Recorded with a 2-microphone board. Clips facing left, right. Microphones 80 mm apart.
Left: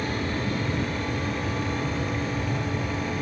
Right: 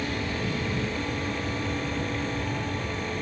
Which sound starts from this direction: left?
An aircraft, at 0.0 s.